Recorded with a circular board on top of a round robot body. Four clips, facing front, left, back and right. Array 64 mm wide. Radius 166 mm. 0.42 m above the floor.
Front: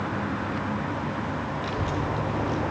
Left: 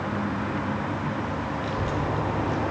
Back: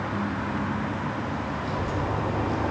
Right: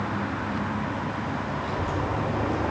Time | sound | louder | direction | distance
1.6 | a child speaking | left 1 dB, even | 20° left | 0.9 m